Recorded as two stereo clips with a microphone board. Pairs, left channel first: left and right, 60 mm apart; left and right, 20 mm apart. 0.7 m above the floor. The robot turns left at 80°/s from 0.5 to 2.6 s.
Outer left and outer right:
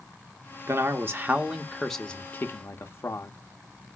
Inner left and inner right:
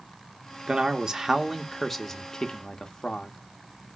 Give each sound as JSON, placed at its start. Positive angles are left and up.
{"t": 0.7, "sound": "a man speaking", "azimuth_deg": -90, "distance_m": 0.6}